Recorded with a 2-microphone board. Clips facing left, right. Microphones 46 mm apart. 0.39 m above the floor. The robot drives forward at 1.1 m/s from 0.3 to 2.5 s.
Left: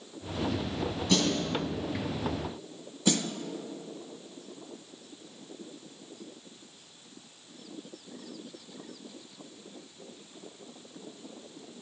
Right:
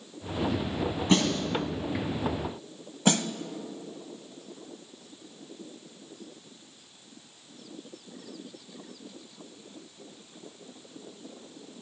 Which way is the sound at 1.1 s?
30° right (ahead or behind).